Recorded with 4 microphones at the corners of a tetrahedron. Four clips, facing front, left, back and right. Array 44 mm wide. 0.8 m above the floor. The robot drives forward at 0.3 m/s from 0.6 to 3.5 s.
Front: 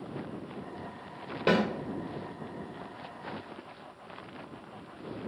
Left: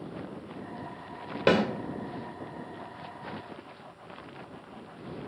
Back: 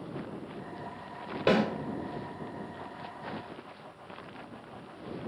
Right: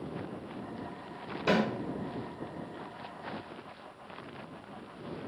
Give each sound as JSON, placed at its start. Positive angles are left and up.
{"t": 1.5, "sound": "a snare drum", "azimuth_deg": 95, "distance_m": 1.3}